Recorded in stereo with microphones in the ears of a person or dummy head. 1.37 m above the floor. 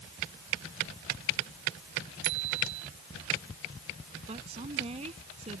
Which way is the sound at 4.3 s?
35° right (ahead or behind).